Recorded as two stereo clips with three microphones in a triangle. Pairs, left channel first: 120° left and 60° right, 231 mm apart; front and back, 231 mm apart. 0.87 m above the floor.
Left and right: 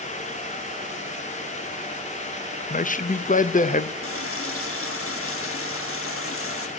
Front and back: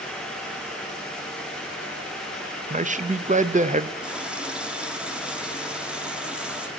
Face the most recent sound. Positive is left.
turn(degrees=95)